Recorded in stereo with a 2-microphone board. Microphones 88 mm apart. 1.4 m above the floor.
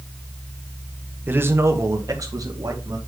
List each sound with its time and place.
1.3 s a man speaking: 20° right (ahead or behind), 1.1 m; by 3.0 s 45° right (ahead or behind), 2.5 m